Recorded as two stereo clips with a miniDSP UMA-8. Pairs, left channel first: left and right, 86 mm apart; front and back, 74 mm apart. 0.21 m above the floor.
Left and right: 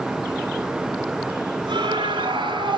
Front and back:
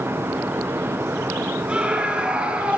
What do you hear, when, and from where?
1.7 s a scream: 105° right, 4 m